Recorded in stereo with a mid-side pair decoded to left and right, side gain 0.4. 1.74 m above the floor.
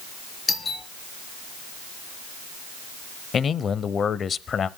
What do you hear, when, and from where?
0.5 s a doorbell: 40° left, 4 m
3.3 s a man speaking: 55° left, 0.8 m